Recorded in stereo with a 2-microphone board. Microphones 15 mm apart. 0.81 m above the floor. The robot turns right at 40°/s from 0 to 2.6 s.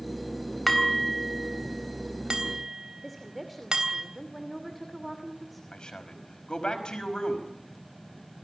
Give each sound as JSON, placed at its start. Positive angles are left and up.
{"t": 0.7, "sound": "dishes clattering", "side_deg": 15, "distance_m": 3.5}
{"t": 3.0, "sound": "a woman speaking", "side_deg": -10, "distance_m": 2.5}
{"t": 5.7, "sound": "a man speaking", "side_deg": 80, "distance_m": 5.0}